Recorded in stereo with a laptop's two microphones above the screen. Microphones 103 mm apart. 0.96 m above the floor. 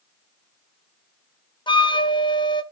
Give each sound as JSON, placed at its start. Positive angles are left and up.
{"t": 1.7, "sound": "a flute", "side_deg": 50, "distance_m": 0.6}